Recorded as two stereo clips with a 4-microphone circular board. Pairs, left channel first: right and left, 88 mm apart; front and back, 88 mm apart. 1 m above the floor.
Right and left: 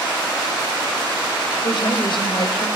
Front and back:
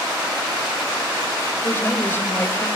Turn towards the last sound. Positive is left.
turn(degrees=-65)